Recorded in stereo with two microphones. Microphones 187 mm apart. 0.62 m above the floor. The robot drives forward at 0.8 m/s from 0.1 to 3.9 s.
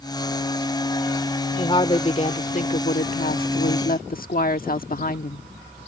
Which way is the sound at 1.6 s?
25° left (ahead or behind).